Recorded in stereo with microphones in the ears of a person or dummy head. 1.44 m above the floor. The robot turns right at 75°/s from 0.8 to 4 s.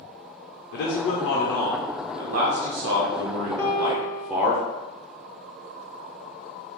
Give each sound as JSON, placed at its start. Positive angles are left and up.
{"t": 0.7, "sound": "a man speaking", "azimuth_deg": 115, "distance_m": 0.5}
{"t": 3.6, "sound": "a piano", "azimuth_deg": 15, "distance_m": 0.7}